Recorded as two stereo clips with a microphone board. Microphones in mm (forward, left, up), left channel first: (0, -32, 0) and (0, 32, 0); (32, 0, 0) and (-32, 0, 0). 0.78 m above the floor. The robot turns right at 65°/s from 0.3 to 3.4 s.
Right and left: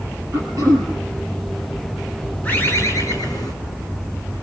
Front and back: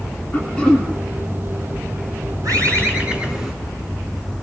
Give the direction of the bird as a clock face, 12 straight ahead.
5 o'clock.